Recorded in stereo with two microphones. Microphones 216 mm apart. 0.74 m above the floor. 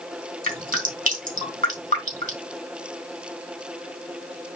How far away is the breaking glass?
No breaking glass in this recording.